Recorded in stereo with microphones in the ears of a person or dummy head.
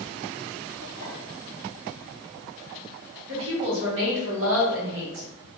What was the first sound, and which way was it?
A clink, 75° right (ahead or behind).